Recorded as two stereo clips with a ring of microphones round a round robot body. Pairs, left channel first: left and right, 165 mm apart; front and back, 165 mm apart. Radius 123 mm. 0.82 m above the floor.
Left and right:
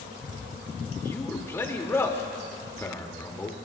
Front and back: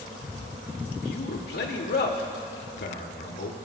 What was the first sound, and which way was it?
A man speaking, 15° left.